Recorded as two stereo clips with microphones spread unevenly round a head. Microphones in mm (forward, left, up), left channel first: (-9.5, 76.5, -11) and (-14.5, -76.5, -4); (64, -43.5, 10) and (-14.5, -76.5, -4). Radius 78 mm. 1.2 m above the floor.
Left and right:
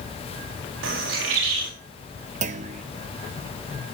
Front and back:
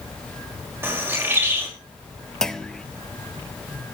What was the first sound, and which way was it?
A bird, 95° right.